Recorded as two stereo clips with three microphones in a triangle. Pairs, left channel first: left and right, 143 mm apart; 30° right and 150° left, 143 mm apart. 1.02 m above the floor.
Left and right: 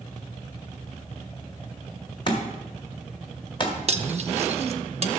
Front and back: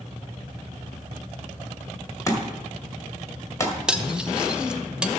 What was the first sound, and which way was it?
A thud, 35° left.